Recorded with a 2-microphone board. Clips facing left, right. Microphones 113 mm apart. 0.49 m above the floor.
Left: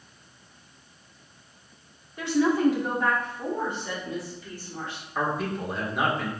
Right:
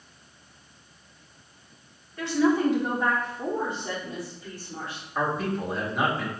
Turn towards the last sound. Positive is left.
turn(degrees=0)  # may be behind; listen again after turning